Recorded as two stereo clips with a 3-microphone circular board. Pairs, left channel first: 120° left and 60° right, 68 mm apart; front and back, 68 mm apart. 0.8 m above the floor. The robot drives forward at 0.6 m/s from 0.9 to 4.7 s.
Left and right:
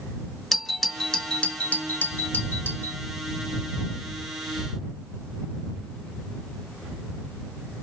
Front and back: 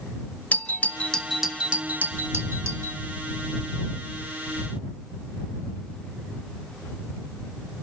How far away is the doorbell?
About 0.8 m.